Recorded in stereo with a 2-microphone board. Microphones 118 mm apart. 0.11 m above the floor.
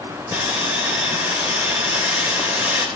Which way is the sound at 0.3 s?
30° right (ahead or behind).